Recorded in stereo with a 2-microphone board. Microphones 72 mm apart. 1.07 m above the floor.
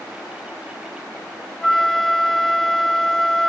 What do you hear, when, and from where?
1.6 s a flute: 5° left (ahead or behind)